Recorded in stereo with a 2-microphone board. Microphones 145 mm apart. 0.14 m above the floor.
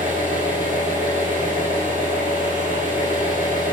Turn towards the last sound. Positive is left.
turn(degrees=-70)  # may be behind; listen again after turning